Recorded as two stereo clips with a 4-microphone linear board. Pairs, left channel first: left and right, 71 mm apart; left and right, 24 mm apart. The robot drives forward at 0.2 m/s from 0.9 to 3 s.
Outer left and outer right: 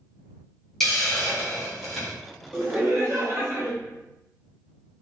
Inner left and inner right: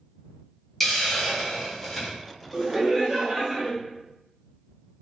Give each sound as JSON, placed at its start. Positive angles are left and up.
{"t": 0.8, "sound": "a hiss", "side_deg": 5, "distance_m": 0.8}
{"t": 2.5, "sound": "laughter", "side_deg": -35, "distance_m": 0.9}